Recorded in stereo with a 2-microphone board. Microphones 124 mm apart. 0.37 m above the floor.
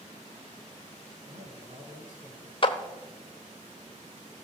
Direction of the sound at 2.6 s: 40° left (ahead or behind).